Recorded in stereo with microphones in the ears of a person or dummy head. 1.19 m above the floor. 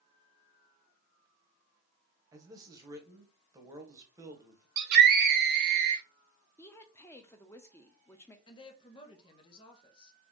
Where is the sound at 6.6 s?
15° left (ahead or behind), 0.6 m.